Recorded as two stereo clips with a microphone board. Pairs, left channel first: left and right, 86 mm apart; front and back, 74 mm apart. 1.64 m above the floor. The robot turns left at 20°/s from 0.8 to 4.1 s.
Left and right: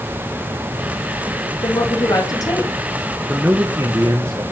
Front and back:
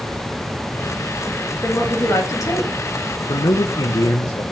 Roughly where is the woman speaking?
Ahead left.